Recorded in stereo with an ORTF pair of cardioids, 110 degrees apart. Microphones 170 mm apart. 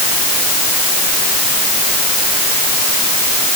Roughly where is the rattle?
No rattle in this recording.